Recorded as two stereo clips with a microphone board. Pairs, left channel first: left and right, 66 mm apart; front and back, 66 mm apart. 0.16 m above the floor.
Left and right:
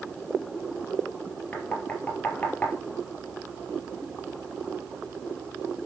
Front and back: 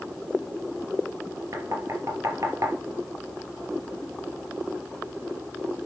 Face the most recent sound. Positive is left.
turn(degrees=155)